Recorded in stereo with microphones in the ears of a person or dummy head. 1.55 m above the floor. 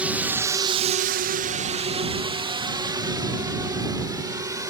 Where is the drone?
5° right (ahead or behind); by 4.7 s 20° right (ahead or behind).